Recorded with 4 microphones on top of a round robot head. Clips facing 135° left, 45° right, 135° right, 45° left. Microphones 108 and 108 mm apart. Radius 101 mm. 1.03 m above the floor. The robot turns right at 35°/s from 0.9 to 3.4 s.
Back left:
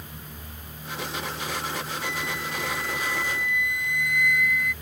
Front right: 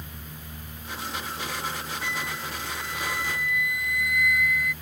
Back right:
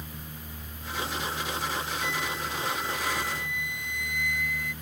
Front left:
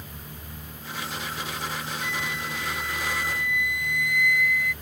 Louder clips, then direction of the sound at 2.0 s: Back left 1 dB, even; 5° right.